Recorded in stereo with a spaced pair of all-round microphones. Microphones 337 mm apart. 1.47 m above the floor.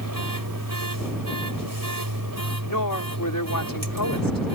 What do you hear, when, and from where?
0.0 s a machine running: 80° right
2.6 s a woman speaking: 70° left (ahead or behind)